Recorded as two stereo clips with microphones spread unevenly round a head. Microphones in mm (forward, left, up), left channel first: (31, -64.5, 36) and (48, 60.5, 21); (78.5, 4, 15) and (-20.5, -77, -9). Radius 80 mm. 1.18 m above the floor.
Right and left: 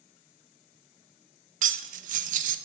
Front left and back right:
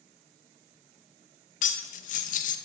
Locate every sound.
1.6 s cutlery clinking: 60° left, 0.6 m